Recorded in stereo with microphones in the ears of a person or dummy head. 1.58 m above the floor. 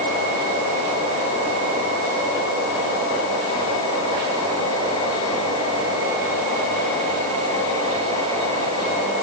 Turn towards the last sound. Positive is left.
No sound to turn to.